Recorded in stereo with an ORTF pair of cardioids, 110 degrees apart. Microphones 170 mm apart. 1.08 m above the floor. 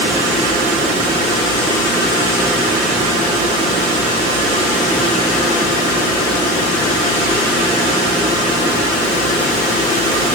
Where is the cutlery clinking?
No cutlery clinking in this recording.